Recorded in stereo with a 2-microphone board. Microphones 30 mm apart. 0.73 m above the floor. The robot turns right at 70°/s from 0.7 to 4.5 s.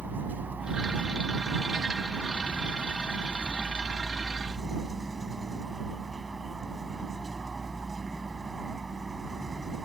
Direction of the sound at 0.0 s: 75° right.